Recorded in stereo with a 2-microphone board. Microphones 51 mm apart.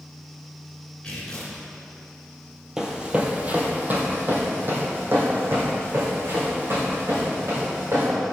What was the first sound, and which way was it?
Tearing paper, 20° left (ahead or behind).